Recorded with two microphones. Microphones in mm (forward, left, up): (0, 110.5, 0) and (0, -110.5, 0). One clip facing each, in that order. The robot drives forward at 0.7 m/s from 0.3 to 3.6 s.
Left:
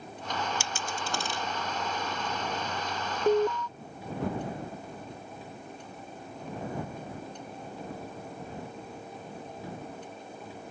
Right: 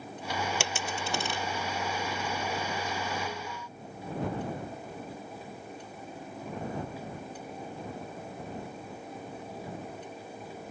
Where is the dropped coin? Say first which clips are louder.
Right 2 dB; 75° right (ahead or behind); by 1.4 s 60° right (ahead or behind).